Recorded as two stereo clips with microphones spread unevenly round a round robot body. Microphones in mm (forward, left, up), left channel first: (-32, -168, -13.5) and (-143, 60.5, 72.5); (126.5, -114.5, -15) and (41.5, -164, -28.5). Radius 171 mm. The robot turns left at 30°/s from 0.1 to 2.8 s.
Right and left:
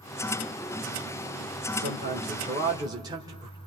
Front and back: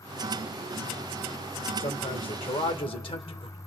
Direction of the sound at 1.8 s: 55° left.